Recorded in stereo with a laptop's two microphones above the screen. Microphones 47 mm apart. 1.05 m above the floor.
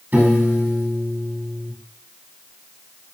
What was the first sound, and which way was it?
A piano, 40° right (ahead or behind).